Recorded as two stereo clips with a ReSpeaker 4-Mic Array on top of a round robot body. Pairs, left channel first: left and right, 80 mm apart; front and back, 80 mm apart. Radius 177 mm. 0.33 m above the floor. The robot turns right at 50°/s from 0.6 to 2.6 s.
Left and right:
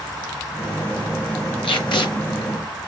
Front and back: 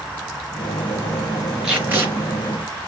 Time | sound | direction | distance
1.6 | tape being pulled | 95° left | 4 m